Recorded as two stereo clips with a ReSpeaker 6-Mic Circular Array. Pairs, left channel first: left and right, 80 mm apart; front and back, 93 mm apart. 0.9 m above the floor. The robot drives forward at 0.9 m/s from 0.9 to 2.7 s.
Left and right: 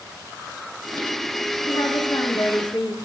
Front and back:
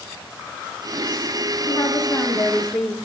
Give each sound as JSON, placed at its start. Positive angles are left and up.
{"t": 1.7, "sound": "a woman speaking", "azimuth_deg": 55, "distance_m": 2.0}